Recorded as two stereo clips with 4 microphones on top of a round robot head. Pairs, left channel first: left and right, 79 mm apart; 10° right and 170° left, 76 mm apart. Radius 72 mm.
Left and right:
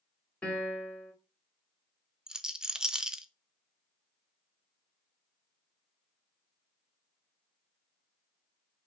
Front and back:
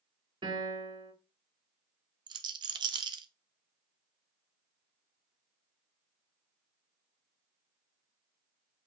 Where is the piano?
160° left, 3.5 m.